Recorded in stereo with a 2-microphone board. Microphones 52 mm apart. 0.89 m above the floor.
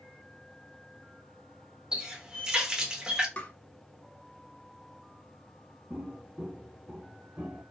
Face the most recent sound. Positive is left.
turn(degrees=-10)  # may be behind; listen again after turning